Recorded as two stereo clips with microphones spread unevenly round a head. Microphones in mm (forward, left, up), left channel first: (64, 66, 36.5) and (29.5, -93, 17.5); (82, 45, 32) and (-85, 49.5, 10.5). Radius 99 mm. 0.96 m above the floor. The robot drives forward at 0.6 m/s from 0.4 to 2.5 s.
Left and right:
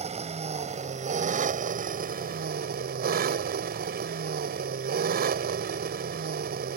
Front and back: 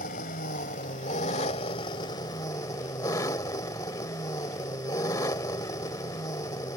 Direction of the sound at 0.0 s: 55° right.